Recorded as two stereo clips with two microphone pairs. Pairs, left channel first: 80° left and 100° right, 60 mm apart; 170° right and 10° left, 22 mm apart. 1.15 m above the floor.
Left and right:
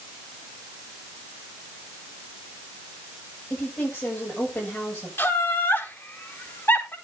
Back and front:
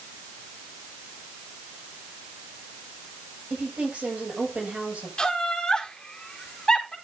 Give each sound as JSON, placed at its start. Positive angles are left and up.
{"t": 3.5, "sound": "a woman speaking", "azimuth_deg": 25, "distance_m": 7.5}
{"t": 5.2, "sound": "laughter", "azimuth_deg": 130, "distance_m": 4.5}